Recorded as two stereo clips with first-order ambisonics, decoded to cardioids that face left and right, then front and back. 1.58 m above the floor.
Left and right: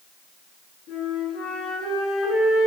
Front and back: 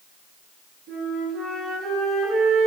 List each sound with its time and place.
0.9 s a flute: 130° left, 4 m